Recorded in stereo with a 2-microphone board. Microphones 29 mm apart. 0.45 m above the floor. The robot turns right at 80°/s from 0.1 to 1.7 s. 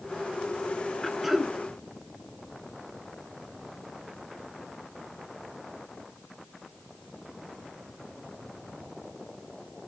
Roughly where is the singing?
No singing in this recording.